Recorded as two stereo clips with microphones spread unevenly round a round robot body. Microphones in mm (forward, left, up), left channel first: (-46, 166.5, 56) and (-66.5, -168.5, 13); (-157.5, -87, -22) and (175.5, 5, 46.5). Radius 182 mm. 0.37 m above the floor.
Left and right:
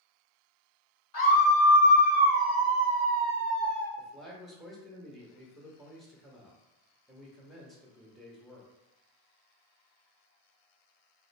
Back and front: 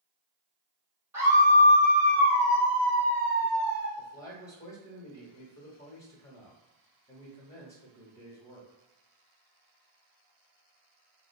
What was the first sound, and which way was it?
A scream, 105° left.